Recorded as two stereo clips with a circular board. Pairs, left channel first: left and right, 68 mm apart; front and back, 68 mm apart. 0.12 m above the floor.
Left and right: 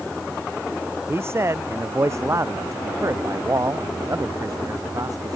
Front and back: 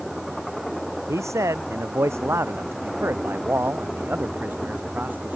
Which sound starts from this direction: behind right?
A man speaking, at 1.1 s.